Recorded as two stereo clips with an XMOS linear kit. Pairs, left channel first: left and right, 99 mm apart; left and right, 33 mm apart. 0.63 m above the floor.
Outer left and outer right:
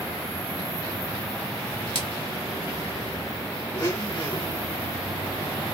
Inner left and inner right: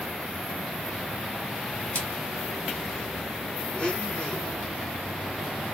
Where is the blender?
30° left (ahead or behind), 1.9 m.